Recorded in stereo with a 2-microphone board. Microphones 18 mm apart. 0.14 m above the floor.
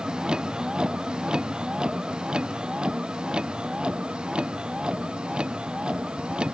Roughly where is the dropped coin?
No dropped coin in this recording.